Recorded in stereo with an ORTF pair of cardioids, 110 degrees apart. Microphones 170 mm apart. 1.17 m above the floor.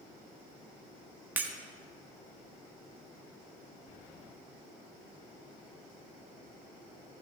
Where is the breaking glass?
10° right, 1.3 m.